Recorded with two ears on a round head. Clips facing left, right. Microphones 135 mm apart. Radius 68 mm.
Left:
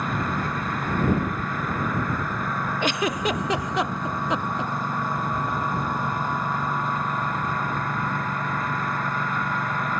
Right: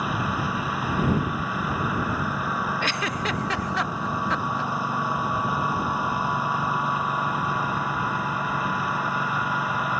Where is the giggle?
15° left (ahead or behind).